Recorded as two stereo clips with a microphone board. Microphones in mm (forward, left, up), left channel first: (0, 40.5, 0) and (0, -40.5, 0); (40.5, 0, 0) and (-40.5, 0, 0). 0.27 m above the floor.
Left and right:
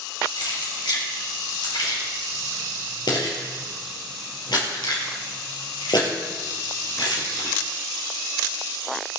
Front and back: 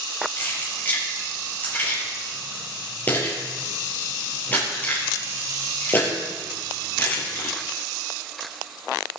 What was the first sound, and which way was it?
Keys jangling, 65° left.